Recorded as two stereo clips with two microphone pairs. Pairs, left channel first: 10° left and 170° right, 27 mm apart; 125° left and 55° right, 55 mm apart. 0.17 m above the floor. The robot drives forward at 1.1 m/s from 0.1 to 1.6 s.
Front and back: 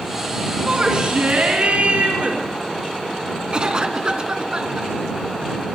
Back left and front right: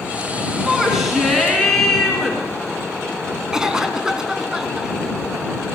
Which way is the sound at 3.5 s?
130° right.